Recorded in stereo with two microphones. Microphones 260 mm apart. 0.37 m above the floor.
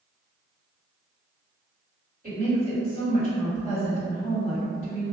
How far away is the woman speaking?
About 1.7 m.